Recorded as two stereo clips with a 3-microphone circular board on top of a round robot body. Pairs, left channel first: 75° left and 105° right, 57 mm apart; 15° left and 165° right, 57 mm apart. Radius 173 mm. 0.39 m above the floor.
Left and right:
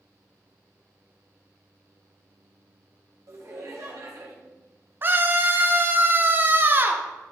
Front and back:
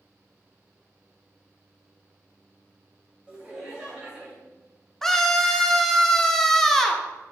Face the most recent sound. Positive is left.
turn(degrees=-65)